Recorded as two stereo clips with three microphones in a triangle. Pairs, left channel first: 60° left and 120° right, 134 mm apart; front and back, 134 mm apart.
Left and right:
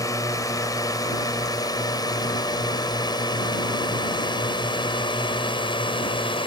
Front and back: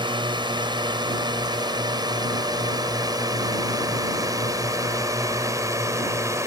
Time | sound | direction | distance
0.0 | a drone | 125° left | ?